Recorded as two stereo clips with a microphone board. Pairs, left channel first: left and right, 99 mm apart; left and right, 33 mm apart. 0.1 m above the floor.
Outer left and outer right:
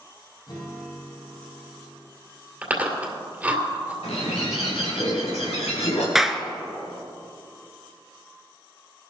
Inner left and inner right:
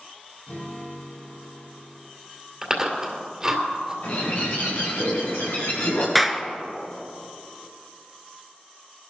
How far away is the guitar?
About 5 m.